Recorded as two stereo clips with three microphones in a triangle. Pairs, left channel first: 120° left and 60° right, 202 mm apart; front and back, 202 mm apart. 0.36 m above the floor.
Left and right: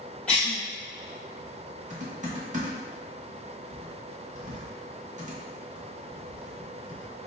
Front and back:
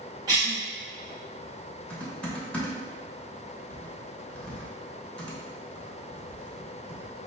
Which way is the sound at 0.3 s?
165° right.